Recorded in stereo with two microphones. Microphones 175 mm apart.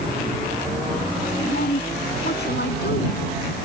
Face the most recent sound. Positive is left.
turn(degrees=70)  # may be behind; listen again after turning